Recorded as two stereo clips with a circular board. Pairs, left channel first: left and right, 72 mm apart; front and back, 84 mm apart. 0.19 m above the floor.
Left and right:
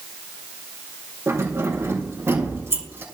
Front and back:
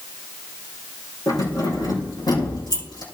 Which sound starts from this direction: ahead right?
Keys jangling, at 1.3 s.